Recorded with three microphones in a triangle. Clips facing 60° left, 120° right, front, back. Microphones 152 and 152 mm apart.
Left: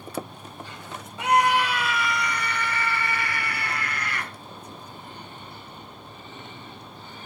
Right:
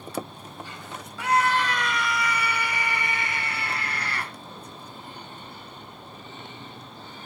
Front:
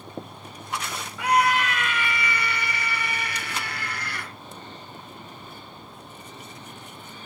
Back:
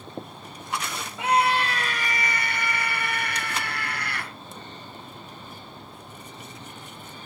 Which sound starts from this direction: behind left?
A scream, at 1.2 s.